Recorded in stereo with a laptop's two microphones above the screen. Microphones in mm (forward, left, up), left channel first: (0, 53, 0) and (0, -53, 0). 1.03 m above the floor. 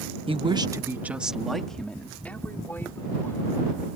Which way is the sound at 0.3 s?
60° right (ahead or behind).